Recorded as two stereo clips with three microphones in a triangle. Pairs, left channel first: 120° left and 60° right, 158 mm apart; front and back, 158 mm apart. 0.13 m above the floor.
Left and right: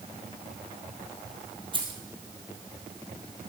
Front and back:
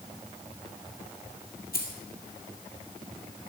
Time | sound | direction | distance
1.7 | keys jangling | 5° right | 2.5 m